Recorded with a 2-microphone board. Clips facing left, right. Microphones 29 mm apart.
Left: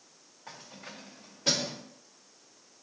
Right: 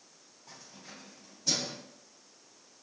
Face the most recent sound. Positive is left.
turn(degrees=70)  # may be behind; listen again after turning